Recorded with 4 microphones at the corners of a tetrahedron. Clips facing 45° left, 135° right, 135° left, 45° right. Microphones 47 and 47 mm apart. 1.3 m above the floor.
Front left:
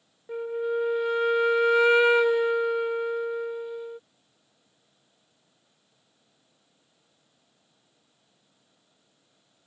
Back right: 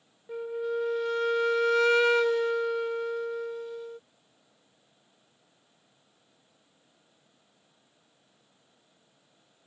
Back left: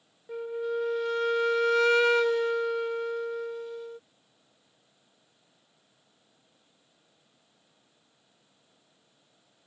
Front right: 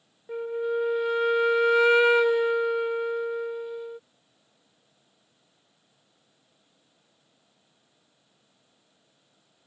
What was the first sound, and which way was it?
A flute, 5° left.